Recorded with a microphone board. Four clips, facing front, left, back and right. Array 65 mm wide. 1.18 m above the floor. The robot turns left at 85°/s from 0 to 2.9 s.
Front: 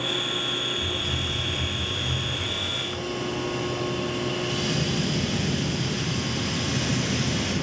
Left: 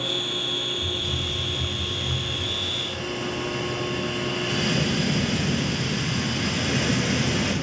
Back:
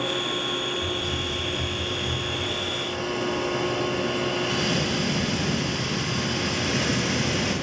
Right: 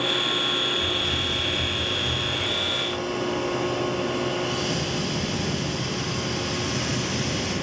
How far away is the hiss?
About 4.5 m.